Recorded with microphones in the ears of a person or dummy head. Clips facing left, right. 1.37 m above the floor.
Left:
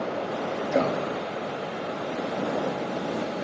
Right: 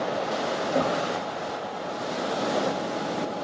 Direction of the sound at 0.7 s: 25° left (ahead or behind).